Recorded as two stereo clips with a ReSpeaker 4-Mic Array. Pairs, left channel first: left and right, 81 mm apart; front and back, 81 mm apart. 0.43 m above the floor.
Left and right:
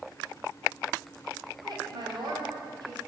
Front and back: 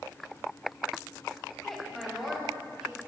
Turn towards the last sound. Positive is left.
turn(degrees=-100)